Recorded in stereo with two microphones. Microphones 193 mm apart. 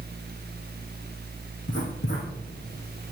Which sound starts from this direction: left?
Writing, at 1.7 s.